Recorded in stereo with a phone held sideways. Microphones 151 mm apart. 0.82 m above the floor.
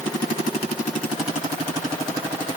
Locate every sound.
Only background noise.